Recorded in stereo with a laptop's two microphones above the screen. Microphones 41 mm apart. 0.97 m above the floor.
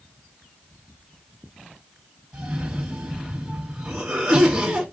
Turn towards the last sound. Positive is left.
turn(degrees=-15)  # may be behind; listen again after turning